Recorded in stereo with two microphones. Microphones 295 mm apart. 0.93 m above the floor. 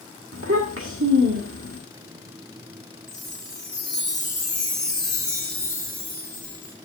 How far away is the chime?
About 3.5 m.